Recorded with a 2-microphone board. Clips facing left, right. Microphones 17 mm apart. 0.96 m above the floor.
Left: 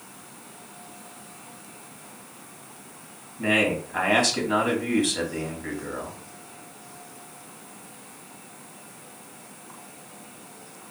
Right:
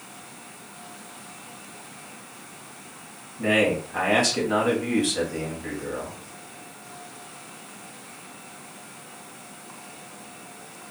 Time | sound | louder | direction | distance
3.4 | a man speaking | right 1 dB | centre (ahead or behind) | 2 m